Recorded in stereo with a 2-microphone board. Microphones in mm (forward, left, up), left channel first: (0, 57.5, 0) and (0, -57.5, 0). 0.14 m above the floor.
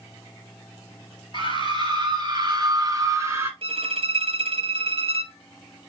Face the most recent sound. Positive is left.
turn(degrees=-55)  # may be behind; listen again after turning